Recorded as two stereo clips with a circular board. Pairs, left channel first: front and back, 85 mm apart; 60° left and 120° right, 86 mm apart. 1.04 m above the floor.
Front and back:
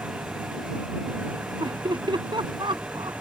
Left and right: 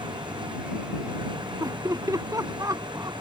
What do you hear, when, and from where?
0.0 s an engine running: 110° right
1.6 s laughter: 165° right